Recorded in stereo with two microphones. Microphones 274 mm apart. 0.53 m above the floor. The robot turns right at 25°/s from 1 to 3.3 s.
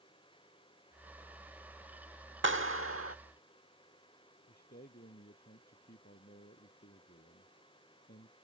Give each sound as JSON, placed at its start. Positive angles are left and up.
{"t": 2.4, "sound": "a clap", "side_deg": -45}
{"t": 4.5, "sound": "a man speaking", "side_deg": 35}